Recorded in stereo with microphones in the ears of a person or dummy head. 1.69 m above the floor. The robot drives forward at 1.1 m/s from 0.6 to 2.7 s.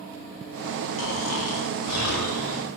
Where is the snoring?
80° left, 4 m; by 2.7 s 70° left (ahead or behind), 4 m.